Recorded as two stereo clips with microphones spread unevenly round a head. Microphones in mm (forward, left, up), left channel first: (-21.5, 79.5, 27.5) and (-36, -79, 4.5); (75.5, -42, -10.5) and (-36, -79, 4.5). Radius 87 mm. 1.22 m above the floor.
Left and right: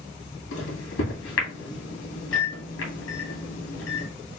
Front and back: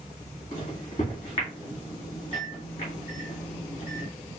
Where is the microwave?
85° left, 1.6 m.